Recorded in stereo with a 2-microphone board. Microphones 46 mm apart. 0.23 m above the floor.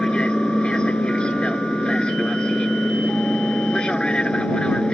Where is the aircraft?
20° left (ahead or behind).